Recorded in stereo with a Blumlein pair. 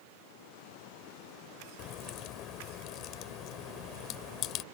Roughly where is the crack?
Ahead left.